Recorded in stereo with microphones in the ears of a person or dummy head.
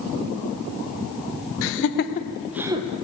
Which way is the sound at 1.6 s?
75° left (ahead or behind).